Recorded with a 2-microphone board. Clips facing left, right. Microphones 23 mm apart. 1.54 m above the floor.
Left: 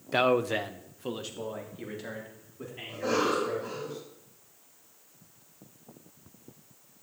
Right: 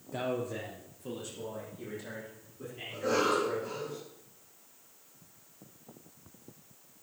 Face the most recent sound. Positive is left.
turn(degrees=40)  # may be behind; listen again after turning